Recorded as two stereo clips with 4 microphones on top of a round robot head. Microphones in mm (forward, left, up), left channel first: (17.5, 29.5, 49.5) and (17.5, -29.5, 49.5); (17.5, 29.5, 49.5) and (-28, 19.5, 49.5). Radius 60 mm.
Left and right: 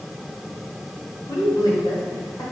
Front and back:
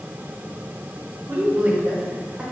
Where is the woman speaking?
145° left, 0.7 m; by 2.4 s 125° left, 1.3 m.